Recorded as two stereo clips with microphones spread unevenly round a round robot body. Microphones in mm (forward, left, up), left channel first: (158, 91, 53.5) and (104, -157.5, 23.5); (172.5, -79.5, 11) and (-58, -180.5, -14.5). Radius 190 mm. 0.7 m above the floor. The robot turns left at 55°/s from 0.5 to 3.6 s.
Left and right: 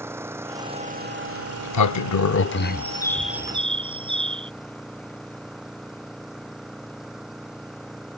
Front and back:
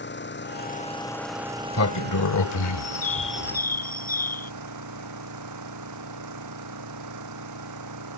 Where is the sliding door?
100° left; by 3.6 s 30° right.